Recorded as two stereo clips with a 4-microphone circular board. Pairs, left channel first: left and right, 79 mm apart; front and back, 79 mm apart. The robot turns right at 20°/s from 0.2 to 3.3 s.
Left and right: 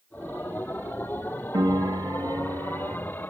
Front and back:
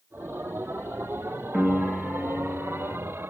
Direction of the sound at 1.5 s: 100° right.